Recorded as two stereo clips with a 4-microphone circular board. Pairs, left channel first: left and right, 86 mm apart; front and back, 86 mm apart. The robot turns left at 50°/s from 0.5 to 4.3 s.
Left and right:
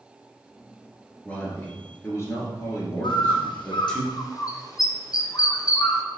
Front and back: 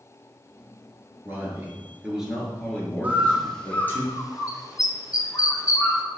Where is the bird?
110° left, 0.8 m; by 6.0 s 45° left, 0.8 m.